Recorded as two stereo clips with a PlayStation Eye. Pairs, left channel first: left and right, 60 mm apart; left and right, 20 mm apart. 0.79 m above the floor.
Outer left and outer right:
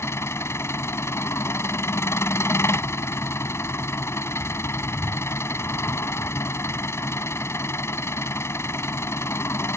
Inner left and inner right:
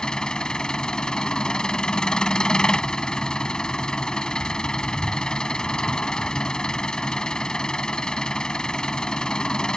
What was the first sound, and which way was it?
An engine running, 45° left (ahead or behind).